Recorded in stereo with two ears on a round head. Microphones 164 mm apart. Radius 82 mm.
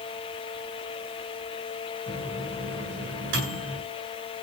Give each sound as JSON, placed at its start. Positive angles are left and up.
{"t": 2.1, "sound": "a microwave", "side_deg": -70, "distance_m": 8.0}